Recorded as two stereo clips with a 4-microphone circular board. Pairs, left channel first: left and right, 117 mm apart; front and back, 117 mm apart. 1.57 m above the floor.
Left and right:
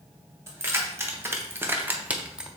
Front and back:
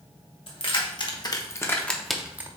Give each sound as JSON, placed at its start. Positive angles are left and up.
{"t": 0.5, "sound": "keys jangling", "azimuth_deg": -25, "distance_m": 1.1}